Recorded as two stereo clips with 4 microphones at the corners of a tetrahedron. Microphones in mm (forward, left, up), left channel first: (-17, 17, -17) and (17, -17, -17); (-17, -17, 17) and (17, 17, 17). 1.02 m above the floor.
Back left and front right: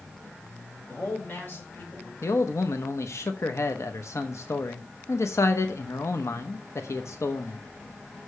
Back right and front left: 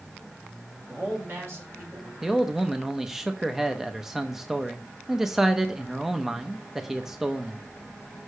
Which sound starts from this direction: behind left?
A man speaking, at 2.2 s.